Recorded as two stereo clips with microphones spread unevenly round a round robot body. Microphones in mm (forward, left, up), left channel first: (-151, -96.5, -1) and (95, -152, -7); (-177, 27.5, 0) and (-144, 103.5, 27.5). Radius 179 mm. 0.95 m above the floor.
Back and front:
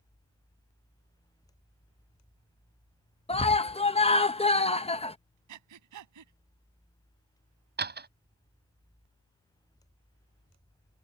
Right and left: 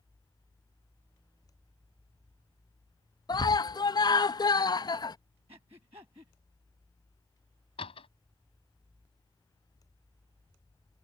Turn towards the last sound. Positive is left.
turn(degrees=-60)